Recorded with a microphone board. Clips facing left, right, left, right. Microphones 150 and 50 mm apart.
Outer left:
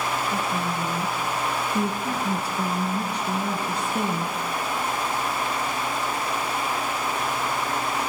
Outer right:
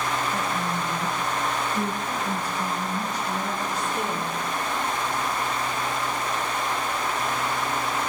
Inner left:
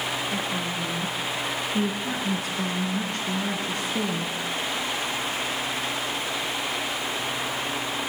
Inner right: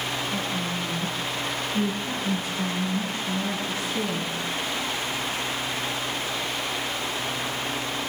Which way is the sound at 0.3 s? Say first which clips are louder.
Outer left 1 dB, even; 75° left (ahead or behind).